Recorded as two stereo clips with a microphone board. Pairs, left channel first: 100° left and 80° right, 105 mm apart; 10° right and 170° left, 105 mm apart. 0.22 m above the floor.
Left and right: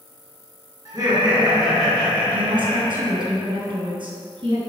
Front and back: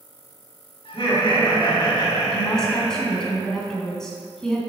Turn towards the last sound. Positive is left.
turn(degrees=-95)